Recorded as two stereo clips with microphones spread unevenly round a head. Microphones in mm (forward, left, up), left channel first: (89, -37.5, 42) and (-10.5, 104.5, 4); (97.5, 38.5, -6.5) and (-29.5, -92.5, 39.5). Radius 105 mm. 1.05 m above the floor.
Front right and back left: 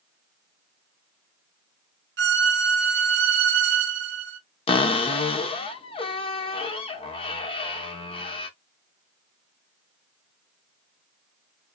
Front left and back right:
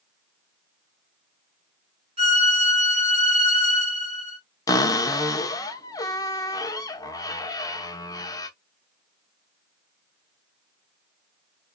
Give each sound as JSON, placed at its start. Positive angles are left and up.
{"t": 2.2, "sound": "a violin", "azimuth_deg": 160, "distance_m": 1.6}
{"t": 4.7, "sound": "a cupboard door", "azimuth_deg": -35, "distance_m": 0.8}